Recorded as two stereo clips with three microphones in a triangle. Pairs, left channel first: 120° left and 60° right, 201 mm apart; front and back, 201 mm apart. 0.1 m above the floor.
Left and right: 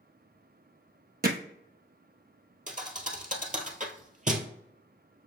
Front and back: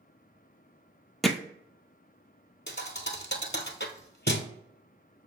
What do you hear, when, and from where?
1.2 s hammering: 90° right, 0.7 m
2.7 s a thud: 15° right, 0.8 m